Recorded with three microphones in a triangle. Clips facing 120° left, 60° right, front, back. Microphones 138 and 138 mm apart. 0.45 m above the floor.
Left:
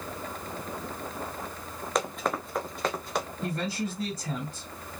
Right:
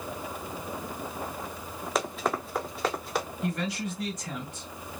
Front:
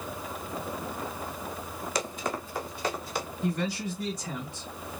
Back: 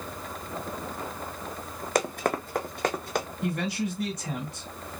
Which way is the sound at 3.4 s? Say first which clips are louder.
Even, front 1 dB; 175° left.